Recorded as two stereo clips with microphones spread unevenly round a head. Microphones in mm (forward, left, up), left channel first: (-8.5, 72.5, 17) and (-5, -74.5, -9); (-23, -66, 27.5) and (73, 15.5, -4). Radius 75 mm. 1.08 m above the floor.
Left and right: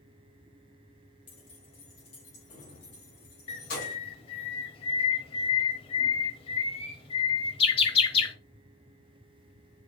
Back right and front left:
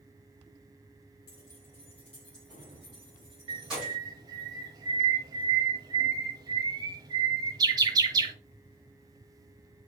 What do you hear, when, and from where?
1.3 s keys jangling: 150° left, 3.5 m; by 4.0 s 125° left, 5.5 m
3.5 s a bird: 115° left, 1.1 m